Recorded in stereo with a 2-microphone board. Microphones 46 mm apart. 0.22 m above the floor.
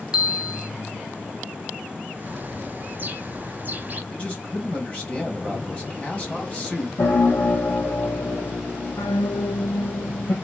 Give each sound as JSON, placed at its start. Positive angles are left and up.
{"t": 0.1, "sound": "a bell", "side_deg": -15, "distance_m": 1.0}
{"t": 2.2, "sound": "a bird", "side_deg": -35, "distance_m": 0.9}
{"t": 4.1, "sound": "a man speaking", "side_deg": 25, "distance_m": 1.6}
{"t": 7.0, "sound": "a piano", "side_deg": 85, "distance_m": 1.7}